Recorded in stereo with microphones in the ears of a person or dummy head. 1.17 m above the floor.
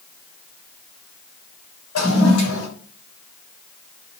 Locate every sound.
1.9 s a toilet flushing: 65° left (ahead or behind), 6 m